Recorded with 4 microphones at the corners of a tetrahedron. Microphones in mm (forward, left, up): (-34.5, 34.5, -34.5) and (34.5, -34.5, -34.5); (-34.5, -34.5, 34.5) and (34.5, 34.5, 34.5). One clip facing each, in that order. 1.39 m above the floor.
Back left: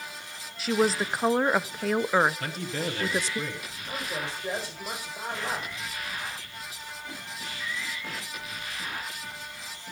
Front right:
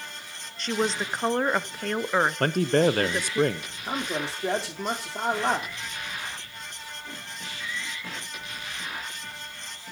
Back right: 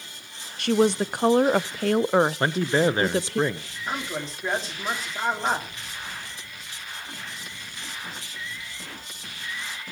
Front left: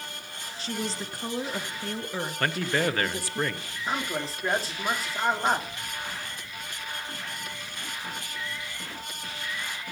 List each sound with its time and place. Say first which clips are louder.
0.6 s a woman speaking: back left 2 dB, back right 13 dB; 140° right, 0.5 m
2.4 s a man speaking: front right 11 dB, back right 5 dB; 70° right, 0.7 m
3.9 s a man speaking: front right 4 dB, front left 1 dB; 40° right, 3 m